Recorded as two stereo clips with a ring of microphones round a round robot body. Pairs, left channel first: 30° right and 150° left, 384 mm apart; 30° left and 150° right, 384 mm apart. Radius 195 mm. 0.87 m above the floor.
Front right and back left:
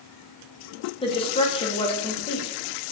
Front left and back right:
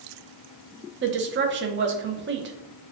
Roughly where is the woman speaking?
Right.